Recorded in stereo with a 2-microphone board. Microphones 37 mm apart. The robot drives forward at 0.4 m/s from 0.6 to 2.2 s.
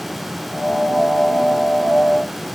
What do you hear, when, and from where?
Only background noise.